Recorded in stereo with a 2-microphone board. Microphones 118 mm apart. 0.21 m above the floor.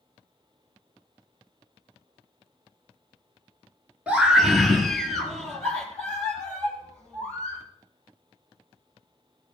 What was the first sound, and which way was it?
A scream, 10° right (ahead or behind).